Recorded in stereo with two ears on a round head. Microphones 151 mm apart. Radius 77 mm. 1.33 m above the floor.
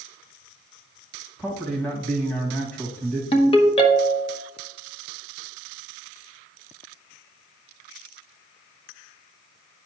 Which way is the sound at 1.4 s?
10° left (ahead or behind).